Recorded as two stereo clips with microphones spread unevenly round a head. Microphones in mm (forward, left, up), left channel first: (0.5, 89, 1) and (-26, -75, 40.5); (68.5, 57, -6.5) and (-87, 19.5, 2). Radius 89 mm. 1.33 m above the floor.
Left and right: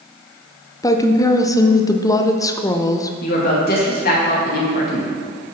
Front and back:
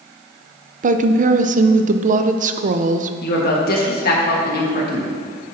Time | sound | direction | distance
0.8 | a woman speaking | 150° left | 0.6 m
3.2 | a woman speaking | 40° left | 1.6 m